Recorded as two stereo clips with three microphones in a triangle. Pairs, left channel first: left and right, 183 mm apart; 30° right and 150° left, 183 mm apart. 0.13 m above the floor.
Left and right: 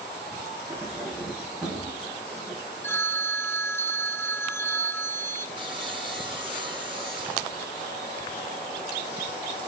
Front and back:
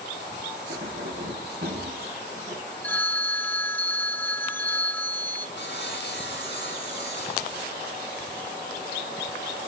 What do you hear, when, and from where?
0.7 s keys jangling: straight behind, 5.5 m; by 2.6 s 170° right, 7 m
2.8 s a phone ringing: 35° left, 0.7 m
5.6 s sawing: 30° right, 5 m